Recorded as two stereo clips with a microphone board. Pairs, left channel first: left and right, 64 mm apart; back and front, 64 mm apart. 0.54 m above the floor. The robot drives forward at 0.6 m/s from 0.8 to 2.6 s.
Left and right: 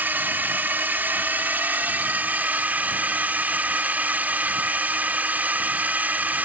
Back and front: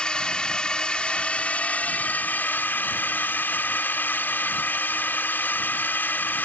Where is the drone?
115° right; by 6.5 s 140° right.